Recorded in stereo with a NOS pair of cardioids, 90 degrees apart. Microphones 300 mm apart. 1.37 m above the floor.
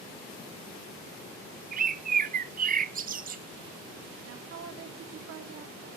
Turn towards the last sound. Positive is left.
turn(degrees=-60)